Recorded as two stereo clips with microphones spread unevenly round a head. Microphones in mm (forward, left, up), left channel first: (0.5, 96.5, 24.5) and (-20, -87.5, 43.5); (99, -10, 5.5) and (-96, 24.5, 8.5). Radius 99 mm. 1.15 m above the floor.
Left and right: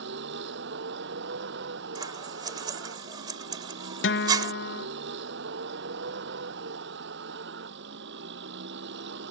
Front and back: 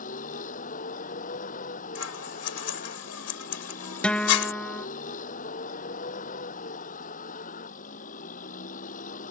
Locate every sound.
0.0 s a vehicle: 65° right
1.9 s scissors: 25° right
4.0 s a guitar: 75° left